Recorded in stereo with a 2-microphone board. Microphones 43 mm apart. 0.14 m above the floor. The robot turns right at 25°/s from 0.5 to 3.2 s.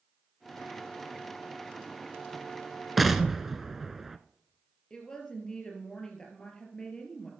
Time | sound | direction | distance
3.0 | an explosion | centre (ahead or behind) | 0.6 m
4.9 | a woman speaking | 20° left (ahead or behind) | 3.5 m